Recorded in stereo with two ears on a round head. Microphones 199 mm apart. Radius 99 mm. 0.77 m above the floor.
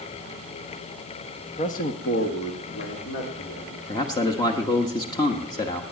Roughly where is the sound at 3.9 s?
Centre.